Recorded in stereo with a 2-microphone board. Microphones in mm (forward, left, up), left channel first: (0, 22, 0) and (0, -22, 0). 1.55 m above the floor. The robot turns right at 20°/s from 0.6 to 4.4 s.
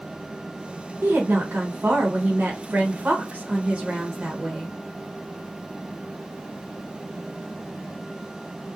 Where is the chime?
I don't hear a chime.